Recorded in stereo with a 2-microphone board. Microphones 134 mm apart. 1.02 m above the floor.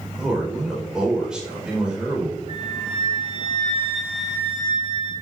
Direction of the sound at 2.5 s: 55° left (ahead or behind).